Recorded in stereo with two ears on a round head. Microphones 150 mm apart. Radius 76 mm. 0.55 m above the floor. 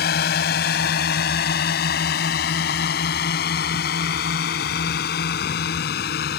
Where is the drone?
65° left (ahead or behind).